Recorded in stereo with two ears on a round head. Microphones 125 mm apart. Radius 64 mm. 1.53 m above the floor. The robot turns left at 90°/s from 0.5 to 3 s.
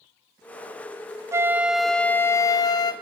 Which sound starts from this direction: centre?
A flute, at 1.3 s.